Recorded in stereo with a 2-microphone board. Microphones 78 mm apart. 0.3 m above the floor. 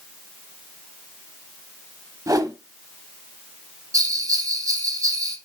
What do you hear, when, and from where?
2.3 s a whoosh: 50° right (ahead or behind), 0.6 m
3.9 s a bell: 50° right (ahead or behind), 1.1 m